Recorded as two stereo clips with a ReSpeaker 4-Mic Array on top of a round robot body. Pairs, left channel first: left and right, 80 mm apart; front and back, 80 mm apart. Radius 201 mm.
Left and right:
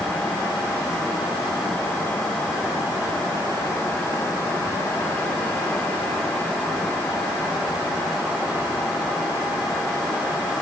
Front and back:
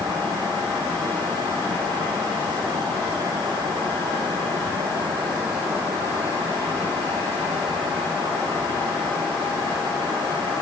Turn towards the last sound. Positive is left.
No sound to turn to.